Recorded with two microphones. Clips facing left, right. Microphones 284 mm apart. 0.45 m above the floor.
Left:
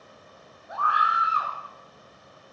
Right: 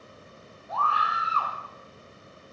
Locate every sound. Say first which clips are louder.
0.7 s a scream: even; 15° left (ahead or behind), 5 m